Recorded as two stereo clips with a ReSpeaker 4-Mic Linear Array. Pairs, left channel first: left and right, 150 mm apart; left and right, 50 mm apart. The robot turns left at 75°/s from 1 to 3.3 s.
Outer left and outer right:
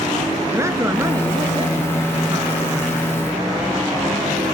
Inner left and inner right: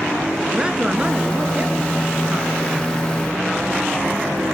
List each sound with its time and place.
0.5 s a man speaking: 30° right, 1.8 m; by 3.0 s 175° left, 1.8 m